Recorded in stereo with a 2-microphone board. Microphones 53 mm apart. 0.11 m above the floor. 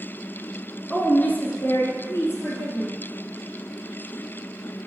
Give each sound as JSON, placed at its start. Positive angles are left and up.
{"t": 0.9, "sound": "a woman speaking", "side_deg": 25, "distance_m": 1.2}